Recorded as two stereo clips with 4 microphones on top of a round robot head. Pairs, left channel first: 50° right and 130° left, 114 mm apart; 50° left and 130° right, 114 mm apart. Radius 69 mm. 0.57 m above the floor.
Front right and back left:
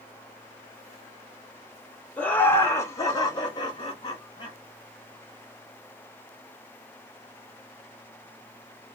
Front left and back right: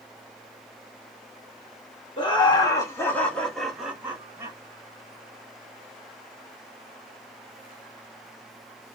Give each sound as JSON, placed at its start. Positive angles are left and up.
{"t": 2.2, "sound": "laughter", "azimuth_deg": 25, "distance_m": 1.7}